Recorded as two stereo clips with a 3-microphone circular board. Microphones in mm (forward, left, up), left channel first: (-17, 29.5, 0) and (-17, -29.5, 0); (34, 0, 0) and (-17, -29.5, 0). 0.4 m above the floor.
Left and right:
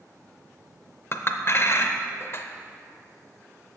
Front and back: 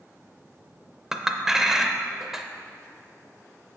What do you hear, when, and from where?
1.1 s a clink: 130° left, 0.5 m